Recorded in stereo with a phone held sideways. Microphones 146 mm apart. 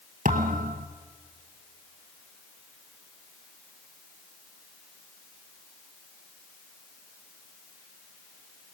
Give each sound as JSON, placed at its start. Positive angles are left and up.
{"t": 0.2, "sound": "a thud", "side_deg": -60, "distance_m": 2.0}